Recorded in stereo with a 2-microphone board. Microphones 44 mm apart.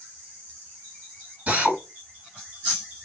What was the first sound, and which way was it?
A drill, 30° right (ahead or behind).